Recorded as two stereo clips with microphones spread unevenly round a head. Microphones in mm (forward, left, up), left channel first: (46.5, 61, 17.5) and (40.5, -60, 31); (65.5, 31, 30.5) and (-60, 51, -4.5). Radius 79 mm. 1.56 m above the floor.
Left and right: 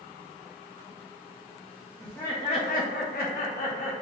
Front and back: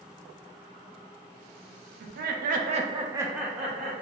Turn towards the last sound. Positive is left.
turn(degrees=75)